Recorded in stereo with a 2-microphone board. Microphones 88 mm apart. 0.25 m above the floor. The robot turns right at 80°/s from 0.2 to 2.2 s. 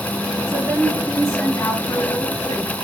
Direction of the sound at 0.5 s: 55° right.